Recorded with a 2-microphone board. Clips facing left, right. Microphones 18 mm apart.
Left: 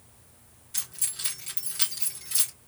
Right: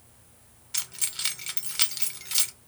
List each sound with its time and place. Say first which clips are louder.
0.7 s keys jangling: right 3 dB; 45° right (ahead or behind), 1.0 m